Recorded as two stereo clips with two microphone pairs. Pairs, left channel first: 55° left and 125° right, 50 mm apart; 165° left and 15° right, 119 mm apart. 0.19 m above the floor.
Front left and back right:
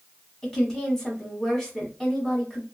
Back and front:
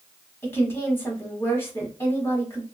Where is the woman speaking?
115° left, 1.2 m.